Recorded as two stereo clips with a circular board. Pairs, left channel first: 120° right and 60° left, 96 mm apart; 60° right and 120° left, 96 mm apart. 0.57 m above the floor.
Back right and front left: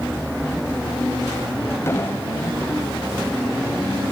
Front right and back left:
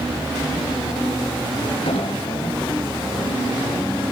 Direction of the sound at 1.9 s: 55° right.